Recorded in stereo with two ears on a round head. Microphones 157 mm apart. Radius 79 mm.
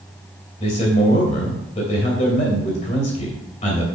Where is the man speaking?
40° left (ahead or behind), 2.5 m.